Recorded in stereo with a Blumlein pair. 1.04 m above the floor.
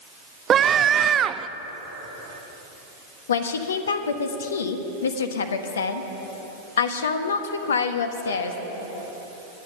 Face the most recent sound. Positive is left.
turn(degrees=65)